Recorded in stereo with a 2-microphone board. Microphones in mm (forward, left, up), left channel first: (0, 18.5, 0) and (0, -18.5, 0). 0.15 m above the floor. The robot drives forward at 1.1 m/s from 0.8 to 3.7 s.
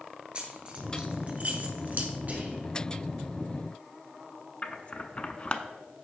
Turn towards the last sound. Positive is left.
turn(degrees=35)  # may be behind; listen again after turning